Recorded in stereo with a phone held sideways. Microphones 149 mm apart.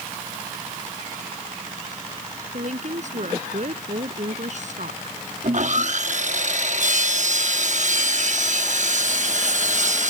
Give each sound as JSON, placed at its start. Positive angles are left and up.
{"t": 2.5, "sound": "a woman speaking", "side_deg": -55}
{"t": 5.4, "sound": "sawing", "side_deg": -55}